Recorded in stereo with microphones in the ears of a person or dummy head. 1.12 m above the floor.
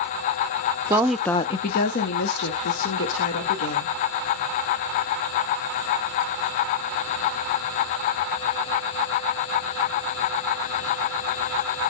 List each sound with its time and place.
0.9 s a woman speaking: 20° right (ahead or behind), 0.6 m; by 4.0 s 75° left (ahead or behind), 2.5 m